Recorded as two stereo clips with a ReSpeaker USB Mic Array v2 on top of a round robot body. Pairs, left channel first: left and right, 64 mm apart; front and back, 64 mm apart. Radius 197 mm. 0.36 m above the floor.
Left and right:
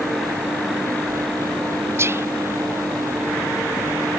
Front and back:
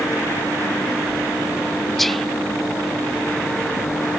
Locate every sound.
2.0 s whispering: 85° right